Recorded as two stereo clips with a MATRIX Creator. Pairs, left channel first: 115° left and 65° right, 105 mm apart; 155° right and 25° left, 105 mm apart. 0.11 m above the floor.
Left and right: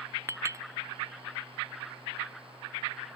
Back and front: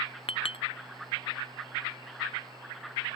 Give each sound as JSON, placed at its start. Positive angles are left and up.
{"t": 0.3, "sound": "a clink", "azimuth_deg": -130}